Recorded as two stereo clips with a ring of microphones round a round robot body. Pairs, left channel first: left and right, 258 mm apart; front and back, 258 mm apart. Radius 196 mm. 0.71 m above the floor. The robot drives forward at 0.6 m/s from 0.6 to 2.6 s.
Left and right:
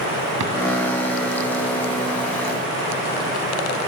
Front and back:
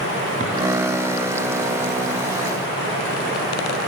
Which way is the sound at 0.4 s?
110° right.